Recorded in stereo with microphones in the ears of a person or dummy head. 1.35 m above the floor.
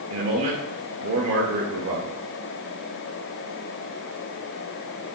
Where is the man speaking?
70° right (ahead or behind), 0.9 m.